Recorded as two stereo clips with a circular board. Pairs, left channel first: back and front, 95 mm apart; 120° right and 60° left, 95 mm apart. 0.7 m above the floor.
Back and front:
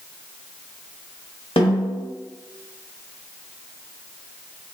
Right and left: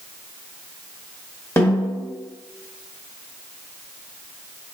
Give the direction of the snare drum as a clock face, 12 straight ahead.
6 o'clock.